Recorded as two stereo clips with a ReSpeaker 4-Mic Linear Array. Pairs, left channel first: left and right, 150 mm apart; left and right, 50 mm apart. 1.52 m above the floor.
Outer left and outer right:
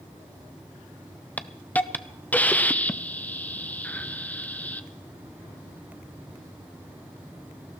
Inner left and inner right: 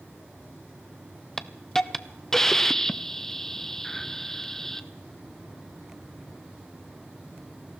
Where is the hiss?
10° left (ahead or behind), 0.6 m.